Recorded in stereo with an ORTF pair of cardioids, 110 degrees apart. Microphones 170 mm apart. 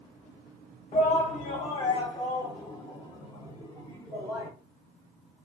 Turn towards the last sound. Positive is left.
turn(degrees=20)